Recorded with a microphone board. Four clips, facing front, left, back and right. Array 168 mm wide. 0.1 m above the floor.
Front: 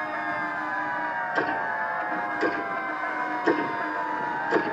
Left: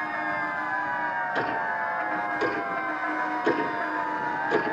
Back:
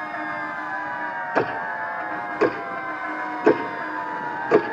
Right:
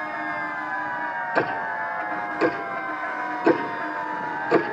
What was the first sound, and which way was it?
Ticking, 160° right.